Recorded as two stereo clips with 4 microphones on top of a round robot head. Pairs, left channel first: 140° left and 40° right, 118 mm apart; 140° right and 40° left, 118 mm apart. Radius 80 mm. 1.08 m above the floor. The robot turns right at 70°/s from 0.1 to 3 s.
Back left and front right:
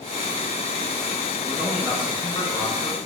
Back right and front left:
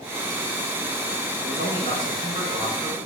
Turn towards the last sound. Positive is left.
turn(degrees=130)